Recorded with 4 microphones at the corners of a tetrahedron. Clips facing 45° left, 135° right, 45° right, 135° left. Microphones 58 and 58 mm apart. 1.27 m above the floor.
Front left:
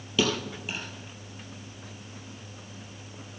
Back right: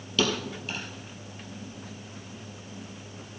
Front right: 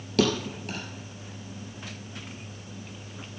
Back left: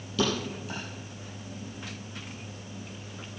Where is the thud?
30° right, 2.5 m.